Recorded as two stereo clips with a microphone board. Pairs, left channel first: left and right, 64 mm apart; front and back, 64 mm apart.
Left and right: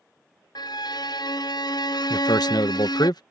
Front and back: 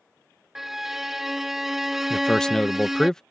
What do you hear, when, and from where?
0.6 s a violin: 95° left
2.1 s a man speaking: 80° left